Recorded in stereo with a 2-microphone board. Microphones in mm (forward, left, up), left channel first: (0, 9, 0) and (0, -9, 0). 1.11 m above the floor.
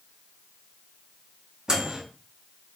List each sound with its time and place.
1.7 s a microwave: 50° right (ahead or behind), 1.2 m